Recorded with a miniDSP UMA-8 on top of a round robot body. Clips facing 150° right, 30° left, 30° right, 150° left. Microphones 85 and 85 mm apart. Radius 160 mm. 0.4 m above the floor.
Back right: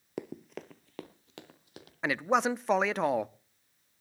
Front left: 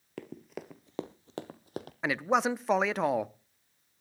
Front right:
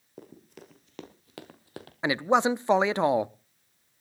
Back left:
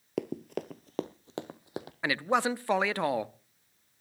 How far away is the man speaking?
About 0.8 m.